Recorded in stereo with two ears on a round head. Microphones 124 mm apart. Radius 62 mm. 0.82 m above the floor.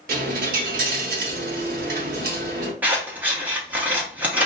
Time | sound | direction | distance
0.1 | a dropped coin | 70° right (ahead or behind) | 0.8 m
2.8 | scissors | 15° right (ahead or behind) | 0.9 m